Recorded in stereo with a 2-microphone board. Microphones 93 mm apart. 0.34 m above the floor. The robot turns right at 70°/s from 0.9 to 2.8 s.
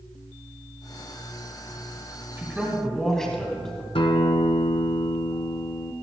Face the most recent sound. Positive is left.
turn(degrees=75)  # may be behind; listen again after turning